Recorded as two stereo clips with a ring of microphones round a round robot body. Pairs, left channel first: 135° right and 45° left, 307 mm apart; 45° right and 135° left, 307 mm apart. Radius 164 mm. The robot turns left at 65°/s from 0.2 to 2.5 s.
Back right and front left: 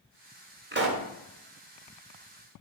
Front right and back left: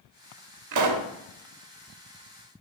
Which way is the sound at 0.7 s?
105° left.